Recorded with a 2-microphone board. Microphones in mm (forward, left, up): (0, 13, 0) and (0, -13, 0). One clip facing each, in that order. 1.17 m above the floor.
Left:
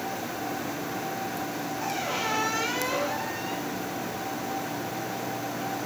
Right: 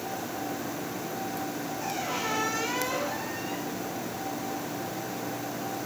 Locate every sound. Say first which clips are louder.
1.8 s a squeak: left 2 dB; 10° left (ahead or behind), 7 m